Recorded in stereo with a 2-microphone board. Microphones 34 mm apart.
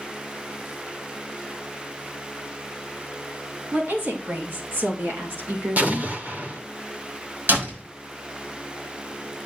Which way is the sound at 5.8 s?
50° right (ahead or behind).